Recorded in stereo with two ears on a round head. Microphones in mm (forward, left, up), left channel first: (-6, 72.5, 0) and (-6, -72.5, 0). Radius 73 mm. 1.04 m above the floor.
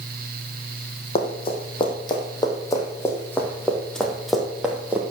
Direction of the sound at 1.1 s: 35° left (ahead or behind).